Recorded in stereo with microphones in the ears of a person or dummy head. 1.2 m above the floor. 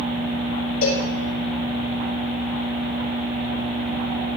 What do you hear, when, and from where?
0.8 s a cowbell: 45° left (ahead or behind), 3.5 m